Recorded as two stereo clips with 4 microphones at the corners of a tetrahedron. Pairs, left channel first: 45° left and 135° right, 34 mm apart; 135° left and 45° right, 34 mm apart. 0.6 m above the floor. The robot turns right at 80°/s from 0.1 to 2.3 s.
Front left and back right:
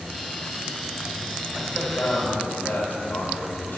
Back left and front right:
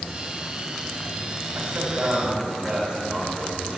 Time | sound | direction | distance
1.6 | a man speaking | 35° right | 3 m